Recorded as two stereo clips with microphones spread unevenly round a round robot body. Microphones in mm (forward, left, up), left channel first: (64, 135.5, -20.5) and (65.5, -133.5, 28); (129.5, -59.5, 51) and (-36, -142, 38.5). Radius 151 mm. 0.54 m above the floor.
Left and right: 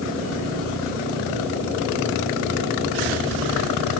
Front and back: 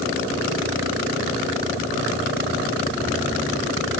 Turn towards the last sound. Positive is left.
No sound to turn to.